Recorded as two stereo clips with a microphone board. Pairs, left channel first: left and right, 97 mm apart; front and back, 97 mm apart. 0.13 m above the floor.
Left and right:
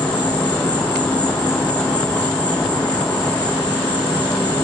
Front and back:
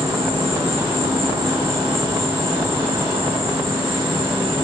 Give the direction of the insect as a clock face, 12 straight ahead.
6 o'clock.